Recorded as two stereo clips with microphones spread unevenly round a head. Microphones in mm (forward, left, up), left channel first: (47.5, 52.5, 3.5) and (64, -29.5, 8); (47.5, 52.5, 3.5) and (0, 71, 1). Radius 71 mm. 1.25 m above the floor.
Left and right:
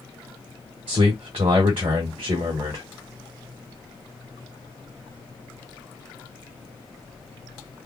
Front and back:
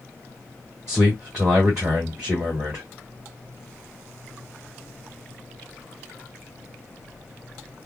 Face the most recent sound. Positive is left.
turn(degrees=-120)